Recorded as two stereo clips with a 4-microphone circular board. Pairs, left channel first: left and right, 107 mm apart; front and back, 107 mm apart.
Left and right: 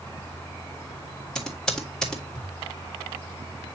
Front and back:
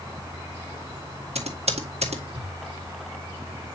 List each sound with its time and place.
1.4 s typing on a keyboard: 175° left, 1.8 m